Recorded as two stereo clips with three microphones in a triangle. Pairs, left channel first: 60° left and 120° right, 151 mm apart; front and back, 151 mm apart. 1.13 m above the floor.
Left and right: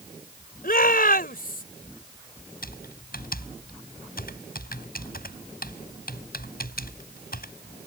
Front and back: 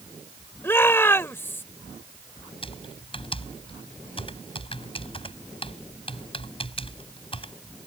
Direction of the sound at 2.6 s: 55° left.